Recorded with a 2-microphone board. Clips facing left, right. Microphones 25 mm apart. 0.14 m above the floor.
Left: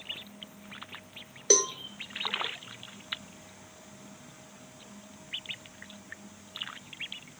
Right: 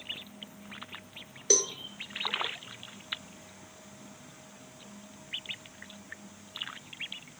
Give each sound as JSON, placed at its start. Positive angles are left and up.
{"t": 1.5, "sound": "a cowbell", "side_deg": 30, "distance_m": 0.6}